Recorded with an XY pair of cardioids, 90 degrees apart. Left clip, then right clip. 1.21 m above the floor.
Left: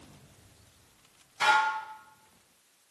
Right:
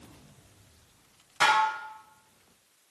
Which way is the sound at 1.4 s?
65° right.